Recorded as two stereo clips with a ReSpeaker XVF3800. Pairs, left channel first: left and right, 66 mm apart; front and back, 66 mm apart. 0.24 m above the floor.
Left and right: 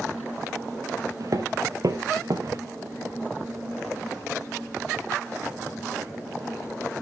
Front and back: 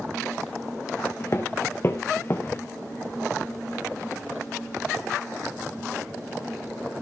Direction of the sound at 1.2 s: 50° right.